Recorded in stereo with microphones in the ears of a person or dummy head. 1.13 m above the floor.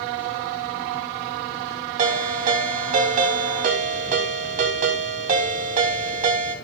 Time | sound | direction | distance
2.0 | a ringtone | 40° right (ahead or behind) | 3.5 m